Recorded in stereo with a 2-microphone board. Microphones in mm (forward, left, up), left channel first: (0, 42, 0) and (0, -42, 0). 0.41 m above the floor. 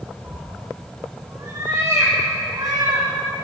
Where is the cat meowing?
15° right (ahead or behind), 3 m; by 3.1 s 45° right (ahead or behind), 4.5 m.